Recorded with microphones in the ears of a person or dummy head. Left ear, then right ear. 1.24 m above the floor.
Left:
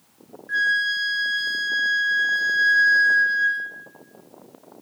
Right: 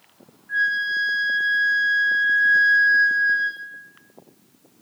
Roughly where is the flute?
Left.